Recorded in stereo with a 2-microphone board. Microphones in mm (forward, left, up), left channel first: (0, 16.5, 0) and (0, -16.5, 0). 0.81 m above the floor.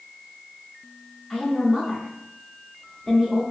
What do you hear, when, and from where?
1.3 s a woman speaking: 5° right (ahead or behind), 0.7 m